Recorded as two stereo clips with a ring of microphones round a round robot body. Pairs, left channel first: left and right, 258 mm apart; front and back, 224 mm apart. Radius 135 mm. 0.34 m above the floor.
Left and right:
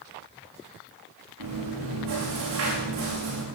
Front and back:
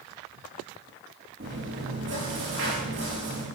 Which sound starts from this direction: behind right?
Chewing, at 1.4 s.